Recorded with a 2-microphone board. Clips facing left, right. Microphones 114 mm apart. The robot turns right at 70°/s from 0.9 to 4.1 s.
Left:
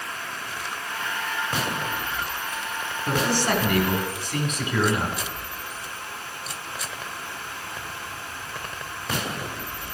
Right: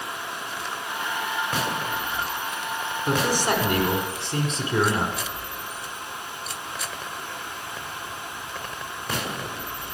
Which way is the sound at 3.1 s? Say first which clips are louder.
Even; 5° right (ahead or behind).